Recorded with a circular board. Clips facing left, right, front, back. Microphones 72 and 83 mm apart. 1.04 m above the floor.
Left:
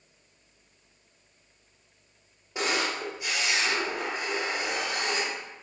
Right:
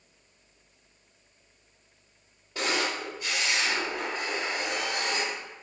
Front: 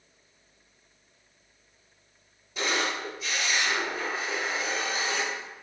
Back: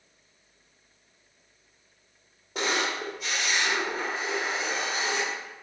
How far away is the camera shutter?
About 1.4 m.